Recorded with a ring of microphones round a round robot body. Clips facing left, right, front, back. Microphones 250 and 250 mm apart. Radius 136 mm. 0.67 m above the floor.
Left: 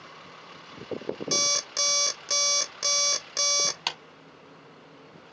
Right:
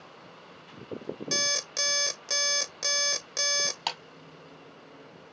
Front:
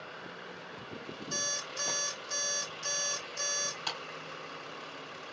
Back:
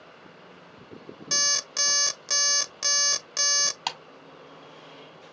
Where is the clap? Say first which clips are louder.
Right 2 dB, back 4 dB; 170° left, 1.9 m.